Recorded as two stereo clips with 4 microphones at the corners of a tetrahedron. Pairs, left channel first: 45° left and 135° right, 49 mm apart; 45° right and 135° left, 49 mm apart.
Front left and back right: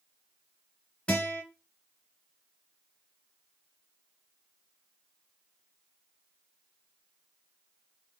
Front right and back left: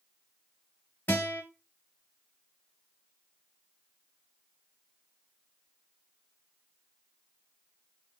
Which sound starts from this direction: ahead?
A guitar, at 1.1 s.